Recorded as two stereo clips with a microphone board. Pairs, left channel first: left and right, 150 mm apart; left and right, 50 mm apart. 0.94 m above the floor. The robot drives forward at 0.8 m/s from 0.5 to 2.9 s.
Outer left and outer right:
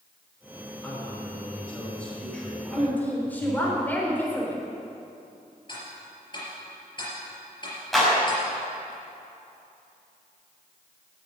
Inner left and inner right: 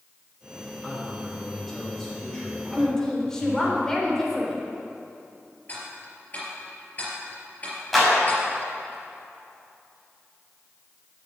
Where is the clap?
Centre (ahead or behind), 5 m.